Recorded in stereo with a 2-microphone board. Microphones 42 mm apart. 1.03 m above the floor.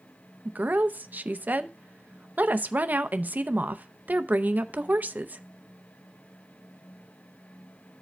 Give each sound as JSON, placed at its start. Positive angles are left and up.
{"t": 0.5, "sound": "a woman speaking", "side_deg": -45, "distance_m": 0.5}